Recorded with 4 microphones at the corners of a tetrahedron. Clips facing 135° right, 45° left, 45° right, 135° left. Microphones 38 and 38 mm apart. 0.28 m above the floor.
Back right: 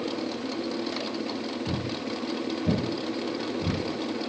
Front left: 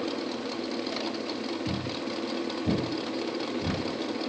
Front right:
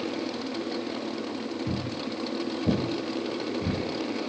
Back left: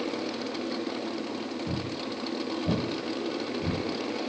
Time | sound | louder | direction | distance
1.7 | footsteps | back right 1 dB, front right 1 dB | 15° right | 1.4 m